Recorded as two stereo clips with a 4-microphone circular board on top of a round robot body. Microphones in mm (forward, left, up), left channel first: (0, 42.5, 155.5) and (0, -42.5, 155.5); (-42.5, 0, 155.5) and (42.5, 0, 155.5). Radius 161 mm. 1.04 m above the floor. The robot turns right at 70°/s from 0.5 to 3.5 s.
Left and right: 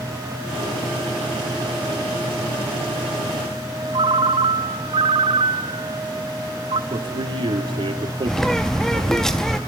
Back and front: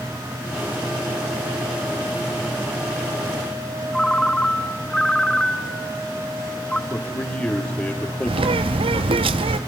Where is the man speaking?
115° right, 3.5 m.